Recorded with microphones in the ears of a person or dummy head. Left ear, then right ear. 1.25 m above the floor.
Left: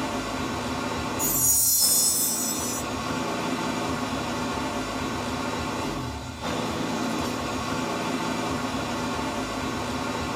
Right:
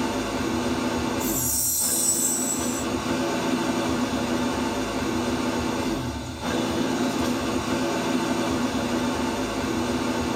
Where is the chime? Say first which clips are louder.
Left 1 dB; 45° left (ahead or behind), 1.6 m.